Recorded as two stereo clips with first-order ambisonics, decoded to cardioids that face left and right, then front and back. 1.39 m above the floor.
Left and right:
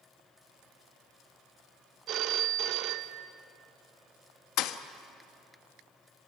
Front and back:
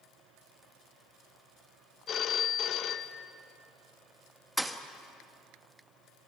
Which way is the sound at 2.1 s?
50° right.